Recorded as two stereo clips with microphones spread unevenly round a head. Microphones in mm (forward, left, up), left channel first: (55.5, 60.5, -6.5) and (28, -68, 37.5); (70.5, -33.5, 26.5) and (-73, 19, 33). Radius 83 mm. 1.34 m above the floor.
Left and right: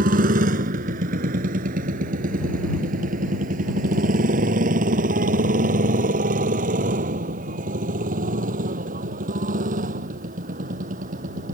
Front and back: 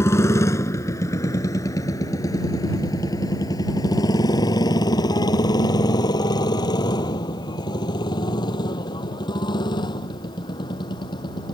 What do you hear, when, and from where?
0.0 s a motorcycle: 95° right; by 11.5 s 85° right